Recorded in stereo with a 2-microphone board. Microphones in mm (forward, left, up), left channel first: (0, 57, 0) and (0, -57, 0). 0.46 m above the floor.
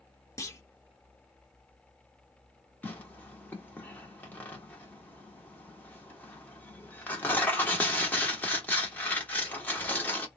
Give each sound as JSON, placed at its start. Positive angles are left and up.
{"t": 0.4, "sound": "a clunk", "side_deg": 25, "distance_m": 0.7}
{"t": 2.8, "sound": "tearing paper", "side_deg": 15, "distance_m": 1.1}